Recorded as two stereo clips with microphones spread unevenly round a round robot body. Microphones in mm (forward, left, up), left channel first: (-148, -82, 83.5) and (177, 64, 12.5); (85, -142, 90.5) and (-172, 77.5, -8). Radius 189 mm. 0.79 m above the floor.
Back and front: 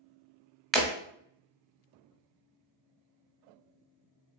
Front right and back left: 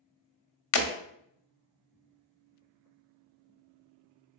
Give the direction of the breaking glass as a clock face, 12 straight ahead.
2 o'clock.